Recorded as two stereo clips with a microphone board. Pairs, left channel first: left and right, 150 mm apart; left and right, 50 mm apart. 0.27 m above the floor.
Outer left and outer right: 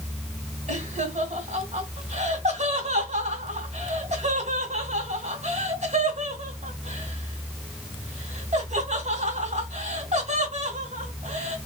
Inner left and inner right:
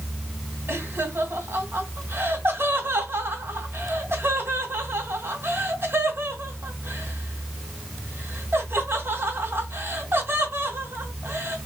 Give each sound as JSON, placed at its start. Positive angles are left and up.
{"t": 0.7, "sound": "laughter", "side_deg": -50, "distance_m": 2.0}